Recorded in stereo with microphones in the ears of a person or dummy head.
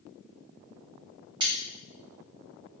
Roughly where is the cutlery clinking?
Right.